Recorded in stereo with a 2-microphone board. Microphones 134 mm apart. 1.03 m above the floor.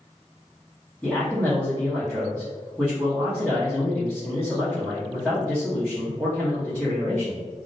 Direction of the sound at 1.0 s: Centre (ahead or behind).